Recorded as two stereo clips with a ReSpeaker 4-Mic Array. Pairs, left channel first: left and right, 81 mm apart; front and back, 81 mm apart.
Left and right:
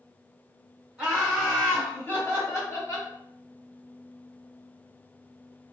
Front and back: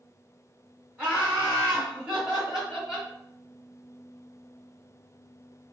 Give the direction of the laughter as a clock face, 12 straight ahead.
5 o'clock.